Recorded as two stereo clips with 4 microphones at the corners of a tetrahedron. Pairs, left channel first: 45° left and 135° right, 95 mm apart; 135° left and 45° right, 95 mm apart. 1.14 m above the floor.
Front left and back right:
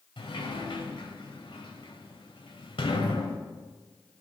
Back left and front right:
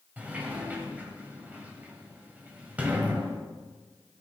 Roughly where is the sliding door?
Ahead left.